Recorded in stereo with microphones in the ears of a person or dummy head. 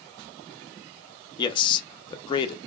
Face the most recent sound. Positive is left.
turn(degrees=25)  # may be behind; listen again after turning